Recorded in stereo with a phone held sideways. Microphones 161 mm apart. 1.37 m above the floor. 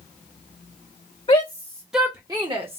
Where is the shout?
35° left (ahead or behind), 0.6 m; by 2.8 s 40° right (ahead or behind), 0.9 m.